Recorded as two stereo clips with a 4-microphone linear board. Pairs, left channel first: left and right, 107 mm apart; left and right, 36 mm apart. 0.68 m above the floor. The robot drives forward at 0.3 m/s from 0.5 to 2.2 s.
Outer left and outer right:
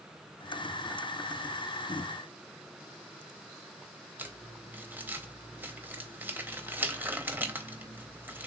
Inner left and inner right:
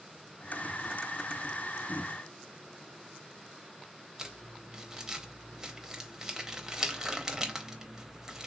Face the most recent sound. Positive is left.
turn(degrees=-20)  # may be behind; listen again after turning